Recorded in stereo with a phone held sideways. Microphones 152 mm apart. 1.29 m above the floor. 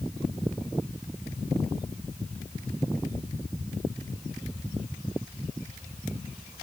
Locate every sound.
Only background noise.